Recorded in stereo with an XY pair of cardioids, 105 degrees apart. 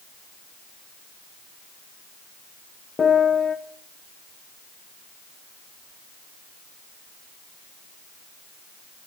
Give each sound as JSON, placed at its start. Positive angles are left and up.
{"t": 3.0, "sound": "a piano", "azimuth_deg": 45, "distance_m": 0.9}